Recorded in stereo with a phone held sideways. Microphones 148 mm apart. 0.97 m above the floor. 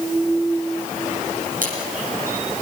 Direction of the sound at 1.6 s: 70° right (ahead or behind).